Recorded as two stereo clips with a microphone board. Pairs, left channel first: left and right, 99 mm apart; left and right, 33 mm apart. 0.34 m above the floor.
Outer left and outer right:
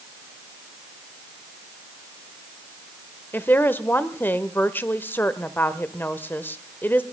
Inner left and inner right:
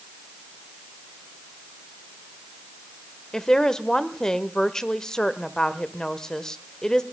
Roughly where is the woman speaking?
Left.